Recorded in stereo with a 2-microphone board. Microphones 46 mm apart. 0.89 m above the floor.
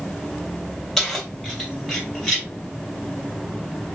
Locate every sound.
1.0 s keys jangling: centre (ahead or behind), 2.0 m; by 2.5 s 10° right (ahead or behind), 3 m